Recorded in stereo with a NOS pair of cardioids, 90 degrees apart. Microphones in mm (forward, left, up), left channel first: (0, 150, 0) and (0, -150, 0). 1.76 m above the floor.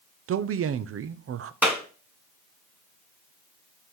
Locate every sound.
0.3 s a man speaking: 50° right, 0.8 m
1.6 s a clap: 5° right, 2.5 m